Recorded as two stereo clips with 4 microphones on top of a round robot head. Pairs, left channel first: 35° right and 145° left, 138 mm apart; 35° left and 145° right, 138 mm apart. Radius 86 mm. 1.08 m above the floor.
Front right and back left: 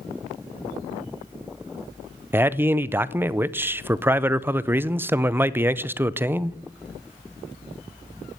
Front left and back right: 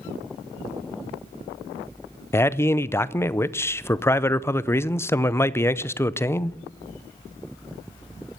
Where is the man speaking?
85° left, 0.6 m.